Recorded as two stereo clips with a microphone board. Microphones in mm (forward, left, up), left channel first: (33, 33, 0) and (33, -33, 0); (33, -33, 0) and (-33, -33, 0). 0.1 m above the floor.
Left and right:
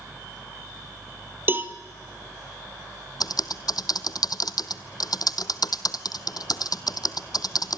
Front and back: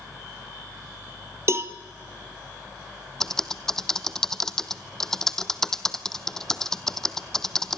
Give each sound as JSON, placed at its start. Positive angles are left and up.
{"t": 1.5, "sound": "a cowbell", "azimuth_deg": -140, "distance_m": 1.4}
{"t": 3.2, "sound": "typing on a keyboard", "azimuth_deg": 80, "distance_m": 0.8}